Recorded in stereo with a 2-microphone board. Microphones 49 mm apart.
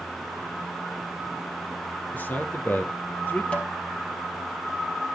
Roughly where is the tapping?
Left.